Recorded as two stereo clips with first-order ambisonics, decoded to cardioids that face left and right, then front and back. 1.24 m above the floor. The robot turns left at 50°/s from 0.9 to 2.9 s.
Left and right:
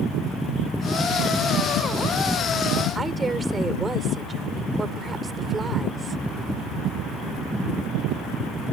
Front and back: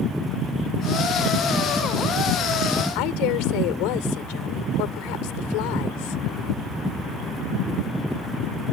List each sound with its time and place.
3.0 s a woman speaking: 15° right